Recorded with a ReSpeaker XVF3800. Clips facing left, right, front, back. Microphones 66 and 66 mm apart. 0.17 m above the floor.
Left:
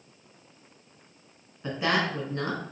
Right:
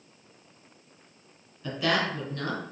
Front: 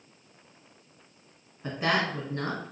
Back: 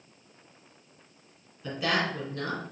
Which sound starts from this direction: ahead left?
A woman speaking, at 1.6 s.